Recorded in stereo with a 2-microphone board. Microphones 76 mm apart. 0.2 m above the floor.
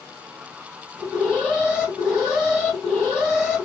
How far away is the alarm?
About 2.5 m.